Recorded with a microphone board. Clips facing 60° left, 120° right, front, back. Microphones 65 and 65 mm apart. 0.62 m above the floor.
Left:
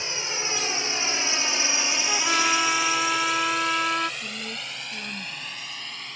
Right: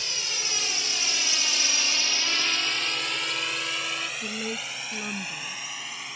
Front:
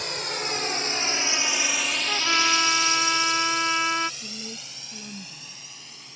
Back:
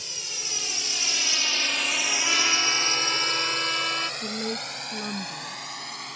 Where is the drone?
Straight ahead; by 6.2 s 160° left.